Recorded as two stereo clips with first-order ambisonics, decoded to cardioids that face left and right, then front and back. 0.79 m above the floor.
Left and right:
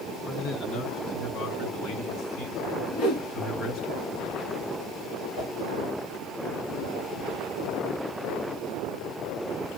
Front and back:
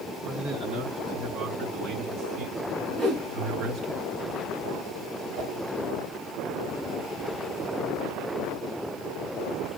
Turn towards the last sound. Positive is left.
turn(degrees=135)